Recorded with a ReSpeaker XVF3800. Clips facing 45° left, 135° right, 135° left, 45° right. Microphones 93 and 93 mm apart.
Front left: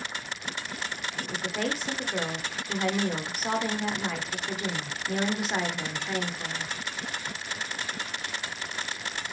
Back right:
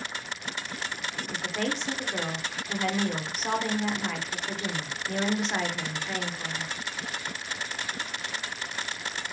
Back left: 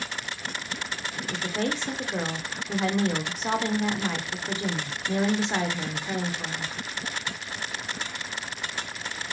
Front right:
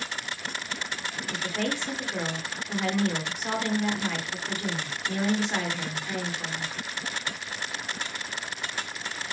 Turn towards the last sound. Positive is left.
turn(degrees=125)